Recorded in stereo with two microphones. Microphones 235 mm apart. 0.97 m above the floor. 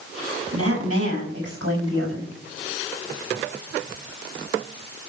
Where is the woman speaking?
85° right, 6 m; by 2.3 s 80° right, 4.5 m.